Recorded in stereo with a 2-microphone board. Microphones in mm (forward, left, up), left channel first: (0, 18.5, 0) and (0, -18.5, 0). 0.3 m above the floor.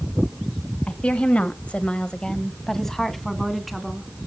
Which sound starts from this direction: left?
A woman speaking, at 0.9 s.